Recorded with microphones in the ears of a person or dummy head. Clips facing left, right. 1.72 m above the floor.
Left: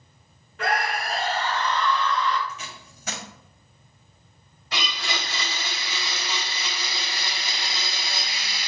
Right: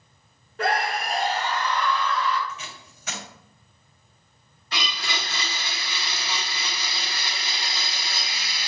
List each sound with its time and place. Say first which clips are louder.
0.6 s a scream: right 1 dB; 35° right (ahead or behind), 0.6 m; by 2.4 s 5° right (ahead or behind), 1.5 m
2.5 s tape being pulled: even; 30° left (ahead or behind), 0.6 m
4.7 s a blender: left 1 dB; 5° left (ahead or behind), 0.9 m